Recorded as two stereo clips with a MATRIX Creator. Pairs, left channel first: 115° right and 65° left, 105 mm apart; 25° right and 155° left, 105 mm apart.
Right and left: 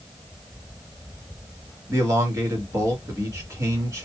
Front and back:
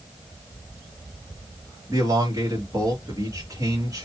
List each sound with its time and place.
1.9 s a man speaking: 110° left, 2 m